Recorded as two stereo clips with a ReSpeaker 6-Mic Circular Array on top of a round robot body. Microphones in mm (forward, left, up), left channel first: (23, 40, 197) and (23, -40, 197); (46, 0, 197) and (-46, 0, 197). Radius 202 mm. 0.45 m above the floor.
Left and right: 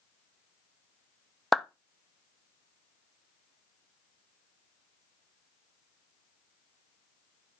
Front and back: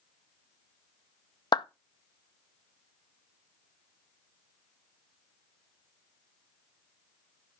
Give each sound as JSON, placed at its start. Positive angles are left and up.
{"t": 1.5, "sound": "a clap", "azimuth_deg": 5, "distance_m": 0.8}